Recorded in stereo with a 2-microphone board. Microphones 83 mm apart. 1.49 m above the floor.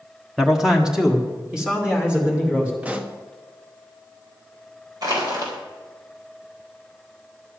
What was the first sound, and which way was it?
A man speaking, 5° right (ahead or behind).